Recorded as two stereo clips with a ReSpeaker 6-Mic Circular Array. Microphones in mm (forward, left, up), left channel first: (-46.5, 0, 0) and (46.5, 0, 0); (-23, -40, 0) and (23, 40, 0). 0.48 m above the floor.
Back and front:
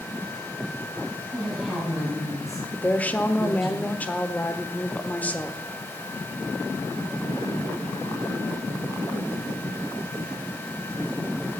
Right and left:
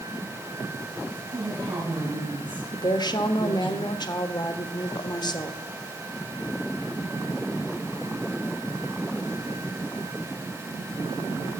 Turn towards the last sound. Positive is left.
turn(degrees=-115)